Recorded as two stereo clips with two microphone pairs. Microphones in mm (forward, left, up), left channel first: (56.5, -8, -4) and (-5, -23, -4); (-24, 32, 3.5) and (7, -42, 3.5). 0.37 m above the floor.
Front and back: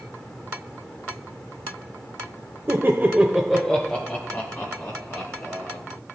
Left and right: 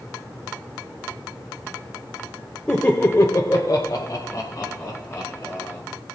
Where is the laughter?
175° right, 1.2 m; by 5.8 s 60° left, 4 m.